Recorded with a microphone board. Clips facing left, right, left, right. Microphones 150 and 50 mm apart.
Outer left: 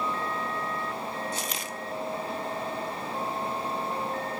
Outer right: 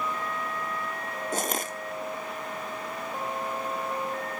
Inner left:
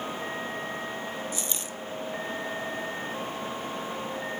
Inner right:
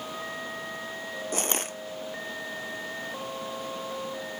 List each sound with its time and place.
1.3 s crushing: 45° right (ahead or behind), 0.9 m